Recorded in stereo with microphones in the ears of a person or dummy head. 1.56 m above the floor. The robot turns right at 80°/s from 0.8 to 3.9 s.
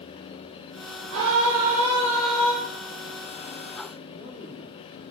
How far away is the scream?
About 0.9 m.